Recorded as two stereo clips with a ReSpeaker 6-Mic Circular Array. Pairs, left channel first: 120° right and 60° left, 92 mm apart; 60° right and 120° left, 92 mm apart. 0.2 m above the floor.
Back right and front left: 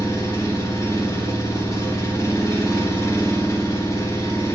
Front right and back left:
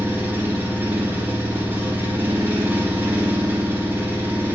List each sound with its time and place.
0.0 s an engine running: 175° right, 1.4 m